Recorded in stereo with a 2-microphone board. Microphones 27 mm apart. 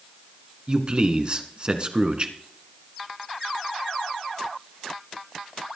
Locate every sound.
0.7 s a man speaking: 35° right (ahead or behind), 1.3 m